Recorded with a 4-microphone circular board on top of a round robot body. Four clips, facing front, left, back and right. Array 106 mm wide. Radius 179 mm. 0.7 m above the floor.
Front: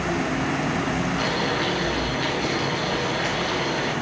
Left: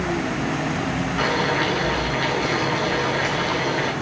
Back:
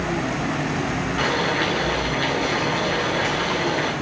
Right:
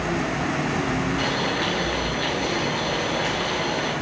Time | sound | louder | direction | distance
1.2 | boiling | left 3 dB, back 2 dB | 120° left | 2.5 m